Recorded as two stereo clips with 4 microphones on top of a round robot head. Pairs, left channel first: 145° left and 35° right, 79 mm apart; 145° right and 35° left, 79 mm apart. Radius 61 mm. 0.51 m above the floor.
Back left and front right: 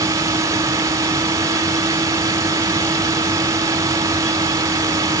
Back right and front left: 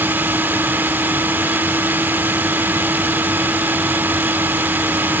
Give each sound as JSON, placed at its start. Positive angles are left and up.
{"t": 0.0, "sound": "a drone", "azimuth_deg": -20}